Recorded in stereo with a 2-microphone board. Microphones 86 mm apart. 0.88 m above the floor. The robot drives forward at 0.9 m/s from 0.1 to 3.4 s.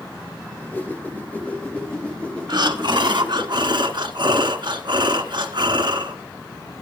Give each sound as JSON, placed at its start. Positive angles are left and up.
{"t": 0.5, "sound": "a whoosh", "side_deg": 25, "distance_m": 1.9}
{"t": 2.5, "sound": "breathing", "side_deg": -60, "distance_m": 1.7}